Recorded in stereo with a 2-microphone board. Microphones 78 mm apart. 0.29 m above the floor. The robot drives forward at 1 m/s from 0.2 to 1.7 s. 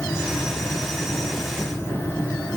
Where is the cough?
I don't hear a cough.